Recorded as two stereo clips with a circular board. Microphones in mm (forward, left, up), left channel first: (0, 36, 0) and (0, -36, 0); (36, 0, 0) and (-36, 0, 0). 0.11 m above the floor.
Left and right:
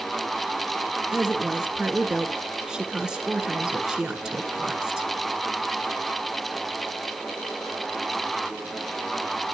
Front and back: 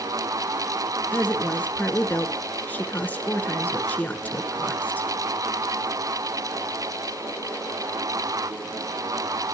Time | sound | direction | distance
1.1 | a woman speaking | 25° right | 1.6 m